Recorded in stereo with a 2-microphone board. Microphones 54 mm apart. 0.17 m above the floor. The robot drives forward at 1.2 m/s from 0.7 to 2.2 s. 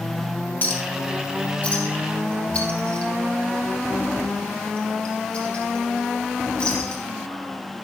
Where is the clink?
35° left (ahead or behind), 3 m; by 7.0 s 20° left (ahead or behind), 4.5 m.